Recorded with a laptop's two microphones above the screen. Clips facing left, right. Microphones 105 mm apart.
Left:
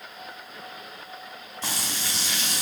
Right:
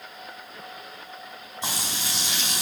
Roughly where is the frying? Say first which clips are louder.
Right 1 dB; centre.